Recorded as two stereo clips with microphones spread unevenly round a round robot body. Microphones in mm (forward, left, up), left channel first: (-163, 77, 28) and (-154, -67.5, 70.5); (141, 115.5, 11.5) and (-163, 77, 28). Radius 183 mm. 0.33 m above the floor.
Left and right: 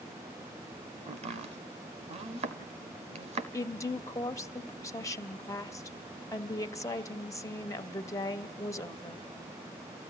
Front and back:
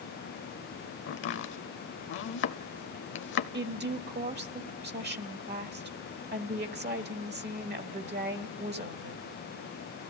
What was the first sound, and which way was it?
Chopping, 30° right.